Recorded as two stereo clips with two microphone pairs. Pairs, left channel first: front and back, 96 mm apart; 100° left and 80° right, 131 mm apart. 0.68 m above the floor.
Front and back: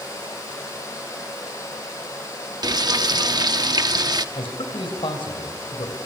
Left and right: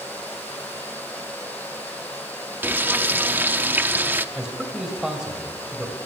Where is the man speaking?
5° left, 3 m.